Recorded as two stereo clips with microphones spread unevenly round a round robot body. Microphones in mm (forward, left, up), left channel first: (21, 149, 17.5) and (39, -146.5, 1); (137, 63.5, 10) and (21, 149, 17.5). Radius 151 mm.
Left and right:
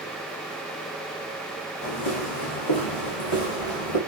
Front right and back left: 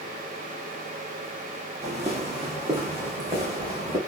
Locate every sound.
1.8 s footsteps: 105° left, 1.9 m; by 4.0 s 90° left, 3 m